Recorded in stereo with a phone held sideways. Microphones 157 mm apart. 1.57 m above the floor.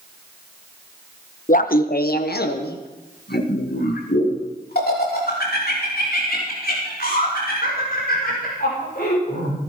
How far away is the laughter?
About 0.9 m.